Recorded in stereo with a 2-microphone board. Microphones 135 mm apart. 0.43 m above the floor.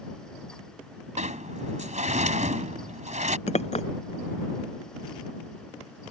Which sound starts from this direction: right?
A sliding door, at 1.2 s.